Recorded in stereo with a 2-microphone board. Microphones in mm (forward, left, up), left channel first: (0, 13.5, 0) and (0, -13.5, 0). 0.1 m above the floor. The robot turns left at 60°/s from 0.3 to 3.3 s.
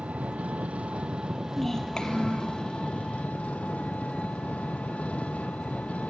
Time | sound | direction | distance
0.0 | an engine running | 75° right | 1.1 m
1.6 | a child speaking | 175° left | 2.5 m